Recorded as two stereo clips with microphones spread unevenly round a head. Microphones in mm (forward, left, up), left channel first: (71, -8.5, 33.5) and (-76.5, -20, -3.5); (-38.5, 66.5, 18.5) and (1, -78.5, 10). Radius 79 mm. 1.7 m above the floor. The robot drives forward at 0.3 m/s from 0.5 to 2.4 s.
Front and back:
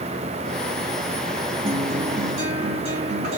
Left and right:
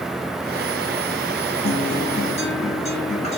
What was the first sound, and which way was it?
A guitar, 145° left.